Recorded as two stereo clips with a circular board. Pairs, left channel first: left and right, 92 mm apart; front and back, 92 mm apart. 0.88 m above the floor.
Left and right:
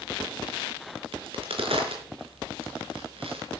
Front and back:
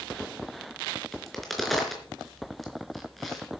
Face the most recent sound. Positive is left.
turn(degrees=-90)